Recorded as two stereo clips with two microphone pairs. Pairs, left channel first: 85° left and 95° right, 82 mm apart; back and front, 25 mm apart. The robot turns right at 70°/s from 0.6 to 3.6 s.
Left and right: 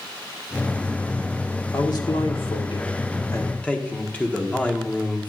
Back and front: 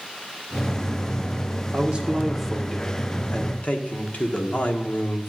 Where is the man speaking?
30° left, 1.4 m; by 5.3 s 160° left, 1.4 m.